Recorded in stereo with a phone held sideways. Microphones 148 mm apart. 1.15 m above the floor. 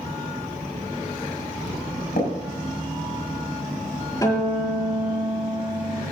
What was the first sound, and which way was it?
Tapping, 85° left.